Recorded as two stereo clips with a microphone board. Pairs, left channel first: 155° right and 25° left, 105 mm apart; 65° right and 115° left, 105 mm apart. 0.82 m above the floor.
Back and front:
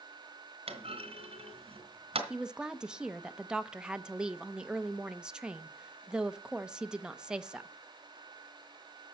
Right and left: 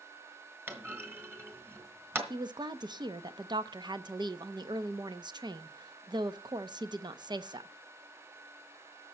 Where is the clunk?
45° left, 2.5 m.